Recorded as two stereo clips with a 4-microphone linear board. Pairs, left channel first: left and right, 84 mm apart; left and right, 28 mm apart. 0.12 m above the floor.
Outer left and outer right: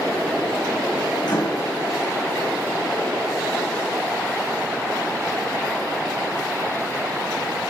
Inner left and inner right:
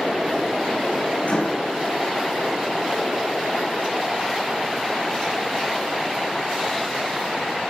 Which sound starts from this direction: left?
A microwave, at 1.2 s.